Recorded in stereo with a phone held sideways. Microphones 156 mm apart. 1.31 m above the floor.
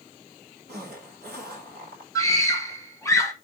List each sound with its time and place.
0.7 s a zipper: 85° right, 3 m
2.1 s a scream: 5° left (ahead or behind), 1.0 m